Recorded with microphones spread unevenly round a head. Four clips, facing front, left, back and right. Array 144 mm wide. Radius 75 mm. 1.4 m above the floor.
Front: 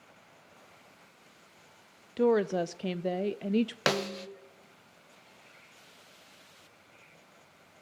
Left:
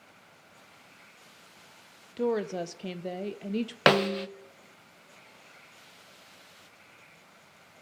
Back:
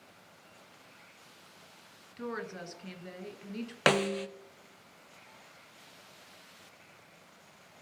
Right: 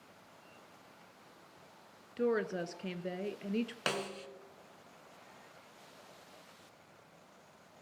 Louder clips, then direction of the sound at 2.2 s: Left 4 dB, front 14 dB; 5° left.